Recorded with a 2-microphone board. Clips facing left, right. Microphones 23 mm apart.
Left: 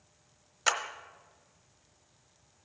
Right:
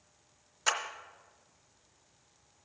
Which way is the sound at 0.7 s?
25° left (ahead or behind).